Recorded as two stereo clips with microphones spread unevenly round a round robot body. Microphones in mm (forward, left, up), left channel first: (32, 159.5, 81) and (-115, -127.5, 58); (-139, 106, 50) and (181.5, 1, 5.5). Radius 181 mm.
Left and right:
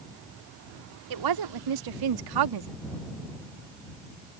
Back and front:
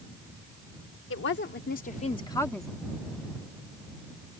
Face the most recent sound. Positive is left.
turn(degrees=-105)